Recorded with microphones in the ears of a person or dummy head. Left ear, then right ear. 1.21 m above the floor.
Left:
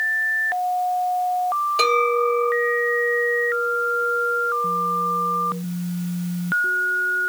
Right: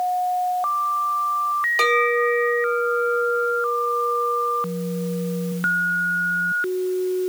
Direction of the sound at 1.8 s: 10° right (ahead or behind).